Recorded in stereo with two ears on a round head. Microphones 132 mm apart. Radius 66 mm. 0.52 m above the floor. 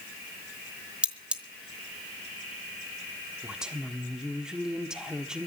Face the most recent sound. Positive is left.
turn(degrees=-5)  # may be behind; listen again after turning